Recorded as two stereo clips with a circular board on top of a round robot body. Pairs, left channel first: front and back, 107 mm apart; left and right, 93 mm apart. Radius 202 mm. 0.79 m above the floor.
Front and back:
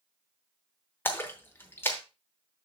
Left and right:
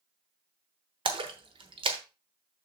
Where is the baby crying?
No baby crying in this recording.